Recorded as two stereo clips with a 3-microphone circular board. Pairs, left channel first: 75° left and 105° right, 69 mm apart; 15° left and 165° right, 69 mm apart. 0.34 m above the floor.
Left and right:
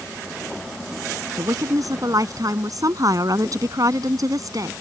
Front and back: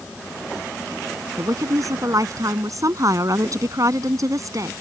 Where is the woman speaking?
130° right.